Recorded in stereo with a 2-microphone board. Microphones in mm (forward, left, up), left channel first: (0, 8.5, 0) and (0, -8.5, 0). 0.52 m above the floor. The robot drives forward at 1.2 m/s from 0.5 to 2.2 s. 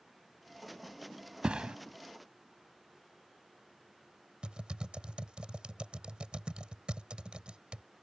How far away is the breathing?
No breathing in this recording.